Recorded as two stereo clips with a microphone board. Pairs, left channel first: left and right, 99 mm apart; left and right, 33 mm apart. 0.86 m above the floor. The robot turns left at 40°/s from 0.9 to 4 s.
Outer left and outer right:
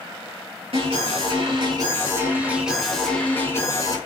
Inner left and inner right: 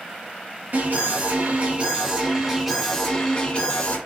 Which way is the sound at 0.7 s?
100° right.